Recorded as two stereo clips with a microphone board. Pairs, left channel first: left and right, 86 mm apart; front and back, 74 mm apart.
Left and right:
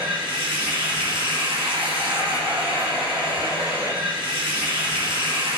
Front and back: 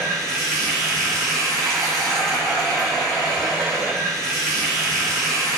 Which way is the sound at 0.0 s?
85° right.